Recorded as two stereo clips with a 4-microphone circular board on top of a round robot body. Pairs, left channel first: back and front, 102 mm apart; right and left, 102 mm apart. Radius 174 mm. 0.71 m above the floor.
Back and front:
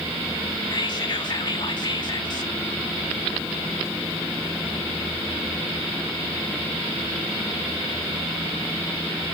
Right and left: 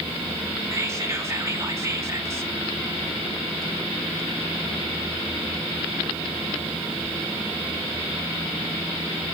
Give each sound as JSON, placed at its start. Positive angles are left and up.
{"t": 0.7, "sound": "whispering", "azimuth_deg": 150, "distance_m": 1.7}